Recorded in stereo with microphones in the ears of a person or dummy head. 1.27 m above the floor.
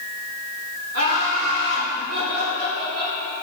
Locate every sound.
0.9 s laughter: 75° right (ahead or behind), 4 m; by 3.1 s 80° right, 7 m